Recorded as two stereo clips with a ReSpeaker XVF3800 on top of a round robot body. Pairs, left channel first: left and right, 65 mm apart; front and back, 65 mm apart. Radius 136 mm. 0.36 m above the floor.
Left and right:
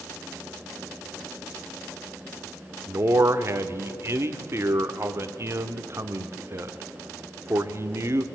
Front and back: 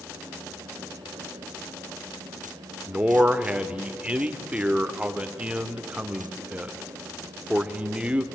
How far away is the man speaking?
About 1.6 m.